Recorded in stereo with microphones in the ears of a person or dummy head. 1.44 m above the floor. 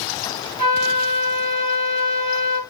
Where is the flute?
40° right (ahead or behind), 1.6 m.